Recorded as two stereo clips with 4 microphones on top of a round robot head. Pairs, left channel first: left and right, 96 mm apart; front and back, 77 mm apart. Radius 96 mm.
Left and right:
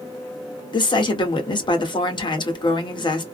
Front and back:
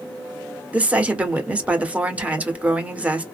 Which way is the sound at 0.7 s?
110° left.